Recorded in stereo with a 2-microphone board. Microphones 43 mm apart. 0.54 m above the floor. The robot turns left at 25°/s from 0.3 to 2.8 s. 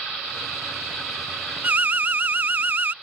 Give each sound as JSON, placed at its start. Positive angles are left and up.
{"t": 1.6, "sound": "an alarm", "side_deg": -45}